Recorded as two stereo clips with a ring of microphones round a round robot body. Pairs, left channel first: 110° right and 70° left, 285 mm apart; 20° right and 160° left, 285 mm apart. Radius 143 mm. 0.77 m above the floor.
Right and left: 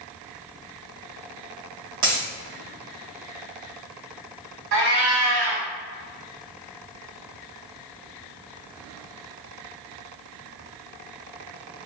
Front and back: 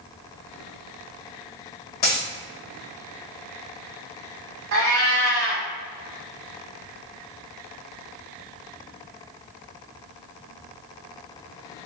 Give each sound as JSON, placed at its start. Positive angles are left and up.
{"t": 2.0, "sound": "a dropped coin", "azimuth_deg": 35, "distance_m": 1.5}
{"t": 4.7, "sound": "a cat meowing", "azimuth_deg": 115, "distance_m": 1.3}